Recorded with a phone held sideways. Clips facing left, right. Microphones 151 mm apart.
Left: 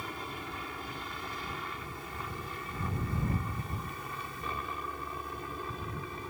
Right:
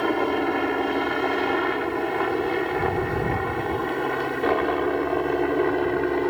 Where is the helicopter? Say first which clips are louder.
Right 20 dB; 70° right (ahead or behind).